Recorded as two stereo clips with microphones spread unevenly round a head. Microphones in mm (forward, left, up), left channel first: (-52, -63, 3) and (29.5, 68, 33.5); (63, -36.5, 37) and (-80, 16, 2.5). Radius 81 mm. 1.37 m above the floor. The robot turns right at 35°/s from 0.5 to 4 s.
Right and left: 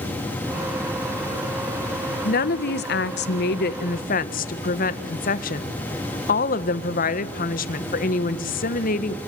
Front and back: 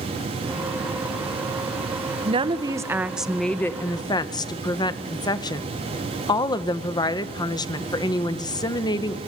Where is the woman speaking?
150° right, 1.5 m; by 9.2 s 90° right, 1.5 m.